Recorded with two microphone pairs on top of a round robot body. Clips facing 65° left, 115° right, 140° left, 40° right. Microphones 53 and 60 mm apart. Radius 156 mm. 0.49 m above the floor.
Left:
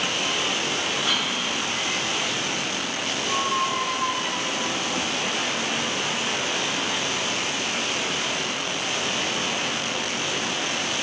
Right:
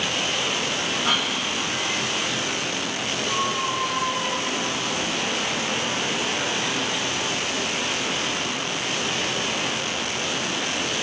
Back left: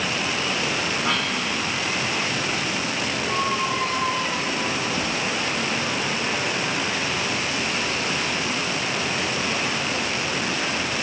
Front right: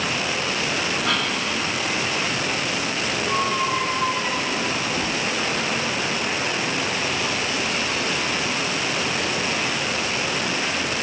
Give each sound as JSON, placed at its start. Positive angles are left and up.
{"t": 1.0, "sound": "a cough", "azimuth_deg": -160, "distance_m": 3.0}
{"t": 3.3, "sound": "a squeak", "azimuth_deg": 35, "distance_m": 0.7}